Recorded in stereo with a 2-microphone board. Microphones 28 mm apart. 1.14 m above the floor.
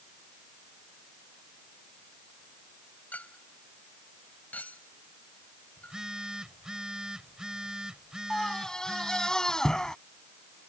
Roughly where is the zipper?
No zipper in this recording.